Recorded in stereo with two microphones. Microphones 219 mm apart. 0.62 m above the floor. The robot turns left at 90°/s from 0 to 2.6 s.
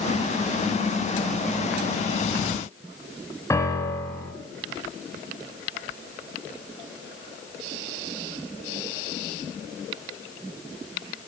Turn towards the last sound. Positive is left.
turn(degrees=15)  # may be behind; listen again after turning